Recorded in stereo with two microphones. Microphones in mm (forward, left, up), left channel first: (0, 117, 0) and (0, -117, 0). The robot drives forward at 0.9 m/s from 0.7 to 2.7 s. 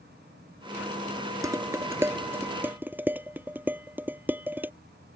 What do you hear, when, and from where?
1.4 s dishes clattering: 15° right (ahead or behind); by 4.7 s 10° right (ahead or behind)